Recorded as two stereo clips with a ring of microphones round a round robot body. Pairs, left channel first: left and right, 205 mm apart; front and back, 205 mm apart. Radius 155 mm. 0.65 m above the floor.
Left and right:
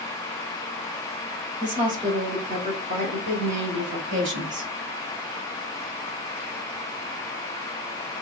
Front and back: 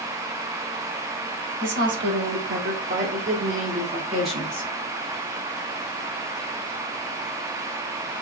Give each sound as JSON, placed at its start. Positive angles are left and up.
{"t": 1.6, "sound": "a woman speaking", "azimuth_deg": -165, "distance_m": 1.8}